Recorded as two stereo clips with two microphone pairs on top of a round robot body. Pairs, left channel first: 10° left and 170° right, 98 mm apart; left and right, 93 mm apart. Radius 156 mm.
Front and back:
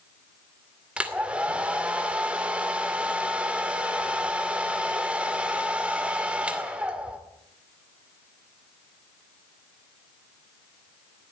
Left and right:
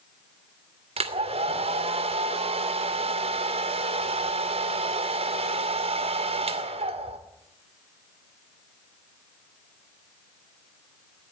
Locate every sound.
1.0 s a hair dryer: 90° right, 2 m